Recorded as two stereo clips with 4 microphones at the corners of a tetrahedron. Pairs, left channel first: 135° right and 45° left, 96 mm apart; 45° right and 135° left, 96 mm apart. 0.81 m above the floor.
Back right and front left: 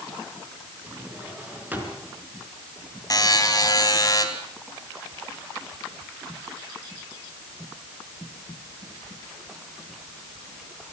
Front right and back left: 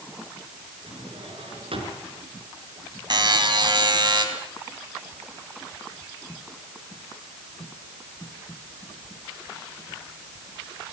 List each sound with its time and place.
0.9 s a drawer: 120° left, 4.5 m
3.1 s a buzzer: 175° left, 3 m